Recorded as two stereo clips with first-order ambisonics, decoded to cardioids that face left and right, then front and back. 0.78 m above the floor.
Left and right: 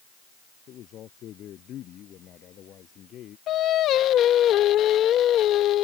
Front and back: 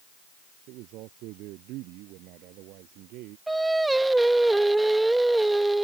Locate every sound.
0.7 s a man speaking: 145° left
3.5 s singing: 100° left